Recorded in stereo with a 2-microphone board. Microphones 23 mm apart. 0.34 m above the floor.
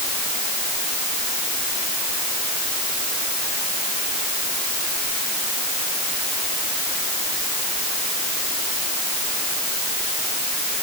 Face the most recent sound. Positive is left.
No sound to turn to.